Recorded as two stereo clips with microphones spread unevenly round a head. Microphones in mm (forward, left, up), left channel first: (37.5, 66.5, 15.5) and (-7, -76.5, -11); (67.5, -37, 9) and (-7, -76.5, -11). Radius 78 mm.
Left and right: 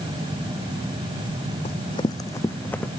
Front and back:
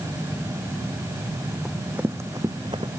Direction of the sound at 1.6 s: 110° left.